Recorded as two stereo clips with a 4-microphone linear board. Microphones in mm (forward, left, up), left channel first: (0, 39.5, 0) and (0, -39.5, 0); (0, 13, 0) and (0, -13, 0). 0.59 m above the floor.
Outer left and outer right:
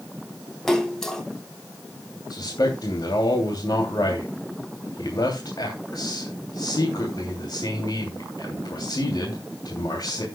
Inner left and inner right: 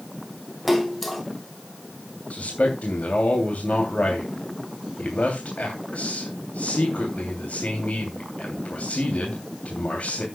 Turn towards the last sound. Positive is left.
turn(degrees=65)  # may be behind; listen again after turning